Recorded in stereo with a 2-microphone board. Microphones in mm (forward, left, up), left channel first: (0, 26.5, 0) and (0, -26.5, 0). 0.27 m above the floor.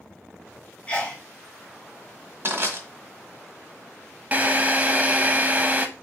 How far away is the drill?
About 0.6 m.